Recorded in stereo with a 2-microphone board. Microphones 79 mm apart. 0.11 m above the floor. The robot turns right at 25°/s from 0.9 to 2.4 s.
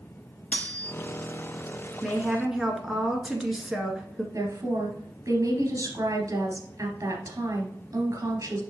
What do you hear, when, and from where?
0.5 s cutlery clinking: 20° left (ahead or behind), 0.7 m
2.0 s a woman speaking: centre (ahead or behind), 1.4 m; by 4.2 s 5° right (ahead or behind), 1.4 m
4.3 s a woman speaking: 45° right (ahead or behind), 2 m